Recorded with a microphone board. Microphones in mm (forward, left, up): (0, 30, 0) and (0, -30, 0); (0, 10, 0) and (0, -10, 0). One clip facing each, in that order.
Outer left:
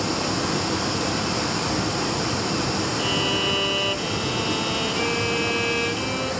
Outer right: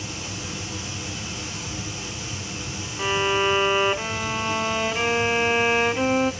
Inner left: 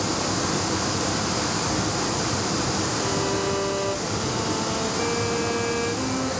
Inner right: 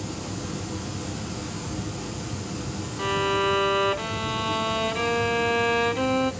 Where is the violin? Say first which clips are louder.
Outer right 7 dB, inner right 1 dB; 35° right (ahead or behind), 0.7 m.